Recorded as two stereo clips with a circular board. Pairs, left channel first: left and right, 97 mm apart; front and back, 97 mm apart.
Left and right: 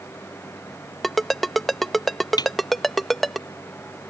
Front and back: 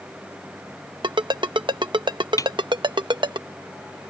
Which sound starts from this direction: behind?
A ringtone, at 1.0 s.